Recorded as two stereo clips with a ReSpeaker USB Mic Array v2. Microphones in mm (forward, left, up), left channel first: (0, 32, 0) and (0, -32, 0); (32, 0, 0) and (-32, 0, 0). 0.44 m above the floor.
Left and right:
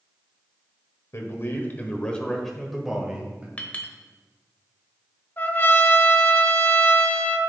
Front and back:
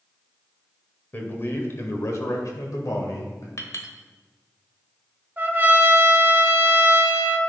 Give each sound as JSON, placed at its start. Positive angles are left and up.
{"t": 1.1, "sound": "a man speaking", "azimuth_deg": 55, "distance_m": 1.5}
{"t": 3.6, "sound": "a clink", "azimuth_deg": 25, "distance_m": 1.1}
{"t": 5.4, "sound": "a trumpet", "azimuth_deg": 135, "distance_m": 0.8}